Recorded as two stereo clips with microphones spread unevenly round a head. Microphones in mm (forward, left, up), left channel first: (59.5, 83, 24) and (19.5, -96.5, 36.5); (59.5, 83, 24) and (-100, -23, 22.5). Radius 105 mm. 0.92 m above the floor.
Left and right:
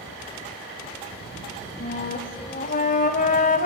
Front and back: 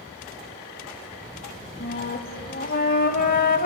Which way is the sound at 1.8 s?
45° left.